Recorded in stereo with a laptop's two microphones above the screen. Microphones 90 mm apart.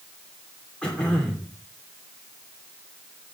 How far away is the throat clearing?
About 2.5 m.